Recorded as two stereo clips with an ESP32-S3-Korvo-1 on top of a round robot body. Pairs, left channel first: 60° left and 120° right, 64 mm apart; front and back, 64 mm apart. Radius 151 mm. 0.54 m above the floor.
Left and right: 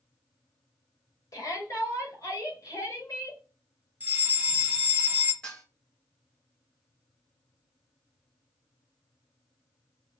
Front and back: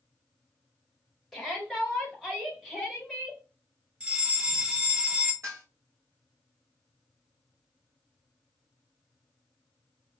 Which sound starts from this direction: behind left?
Dishes clattering, at 5.4 s.